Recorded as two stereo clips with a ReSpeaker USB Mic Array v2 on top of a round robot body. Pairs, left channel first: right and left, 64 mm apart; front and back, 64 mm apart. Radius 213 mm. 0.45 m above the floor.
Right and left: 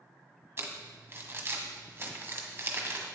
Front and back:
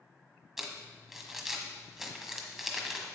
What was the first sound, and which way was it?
Crumpling, 100° left.